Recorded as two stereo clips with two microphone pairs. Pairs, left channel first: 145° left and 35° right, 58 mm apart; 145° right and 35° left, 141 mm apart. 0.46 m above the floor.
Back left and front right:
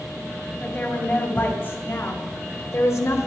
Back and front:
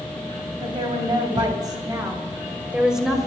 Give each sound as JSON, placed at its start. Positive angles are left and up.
{"t": 0.6, "sound": "a woman speaking", "azimuth_deg": 85, "distance_m": 2.5}